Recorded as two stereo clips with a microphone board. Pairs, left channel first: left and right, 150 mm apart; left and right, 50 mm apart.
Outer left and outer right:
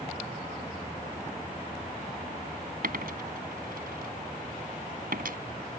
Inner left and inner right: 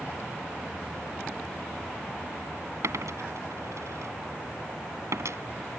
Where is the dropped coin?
75° right (ahead or behind).